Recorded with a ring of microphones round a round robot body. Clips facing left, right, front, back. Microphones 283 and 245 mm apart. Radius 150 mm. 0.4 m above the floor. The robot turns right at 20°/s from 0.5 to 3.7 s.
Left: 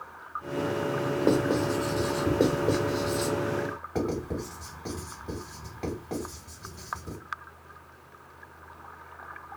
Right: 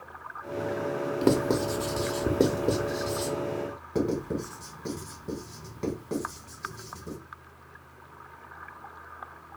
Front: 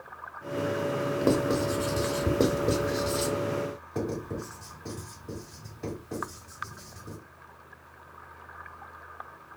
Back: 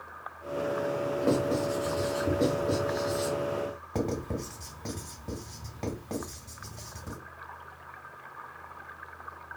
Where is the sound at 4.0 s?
170° right, 1.6 m.